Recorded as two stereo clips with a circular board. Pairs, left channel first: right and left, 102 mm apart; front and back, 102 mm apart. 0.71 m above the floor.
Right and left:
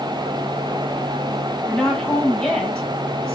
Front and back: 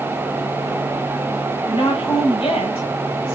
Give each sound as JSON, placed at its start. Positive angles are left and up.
{"t": 1.6, "sound": "a woman speaking", "azimuth_deg": -5, "distance_m": 3.5}